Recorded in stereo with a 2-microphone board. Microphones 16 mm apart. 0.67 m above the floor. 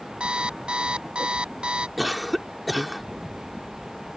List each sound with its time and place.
0.2 s an alarm clock: 80° right
2.0 s a cough: centre (ahead or behind)